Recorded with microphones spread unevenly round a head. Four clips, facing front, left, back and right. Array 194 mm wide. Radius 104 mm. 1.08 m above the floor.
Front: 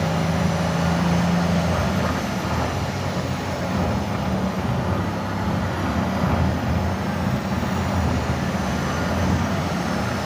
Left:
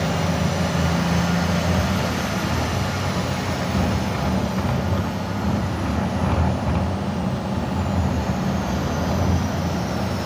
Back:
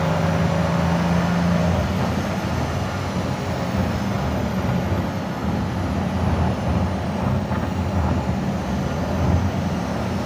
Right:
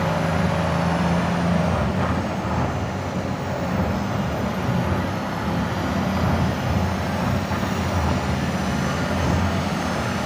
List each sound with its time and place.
Only background noise.